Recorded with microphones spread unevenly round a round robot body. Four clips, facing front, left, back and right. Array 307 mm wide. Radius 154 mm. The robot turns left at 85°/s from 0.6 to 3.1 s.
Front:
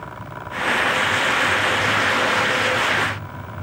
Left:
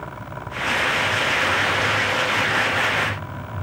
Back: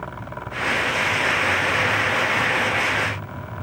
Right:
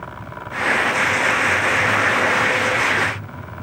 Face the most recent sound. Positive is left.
No sound to turn to.